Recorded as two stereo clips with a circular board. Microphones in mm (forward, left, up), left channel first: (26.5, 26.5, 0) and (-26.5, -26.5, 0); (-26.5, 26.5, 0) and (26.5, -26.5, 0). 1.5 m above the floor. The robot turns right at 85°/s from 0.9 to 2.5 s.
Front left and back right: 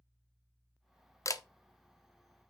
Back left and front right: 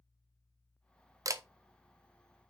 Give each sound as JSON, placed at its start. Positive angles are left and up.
{"t": 1.2, "sound": "a camera shutter", "azimuth_deg": 0, "distance_m": 0.5}